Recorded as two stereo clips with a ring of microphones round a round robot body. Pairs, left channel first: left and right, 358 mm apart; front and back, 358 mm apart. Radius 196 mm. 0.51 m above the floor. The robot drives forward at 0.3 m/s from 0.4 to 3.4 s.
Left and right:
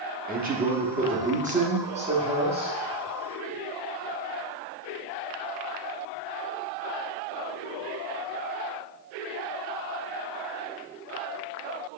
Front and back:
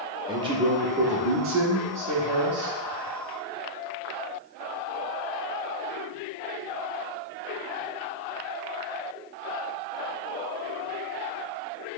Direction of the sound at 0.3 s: 120° right.